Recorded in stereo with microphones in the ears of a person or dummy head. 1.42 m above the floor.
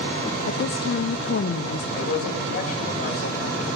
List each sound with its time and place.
0.5 s a woman speaking: 55° left (ahead or behind), 0.7 m
1.9 s a man speaking: 55° left (ahead or behind), 6.5 m